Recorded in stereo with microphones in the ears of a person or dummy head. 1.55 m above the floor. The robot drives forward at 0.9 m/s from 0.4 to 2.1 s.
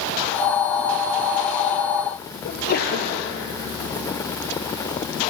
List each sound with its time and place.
2.5 s a sneeze: 60° left (ahead or behind), 0.9 m